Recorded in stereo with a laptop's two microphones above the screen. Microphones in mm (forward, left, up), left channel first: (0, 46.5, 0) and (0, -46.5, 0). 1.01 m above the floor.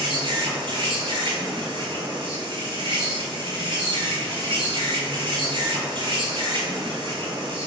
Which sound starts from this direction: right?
An insect, at 0.0 s.